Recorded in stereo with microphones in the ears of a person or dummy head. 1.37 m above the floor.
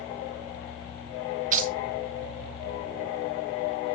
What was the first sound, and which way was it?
Keys jangling, 45° right (ahead or behind).